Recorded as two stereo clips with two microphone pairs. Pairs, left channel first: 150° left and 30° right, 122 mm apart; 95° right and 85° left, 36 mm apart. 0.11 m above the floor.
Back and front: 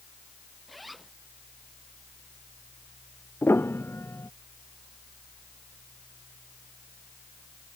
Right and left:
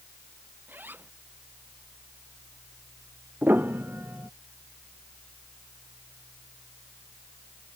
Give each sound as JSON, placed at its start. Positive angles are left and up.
{"t": 0.7, "sound": "a zipper", "azimuth_deg": 60}
{"t": 3.4, "sound": "a piano", "azimuth_deg": 80}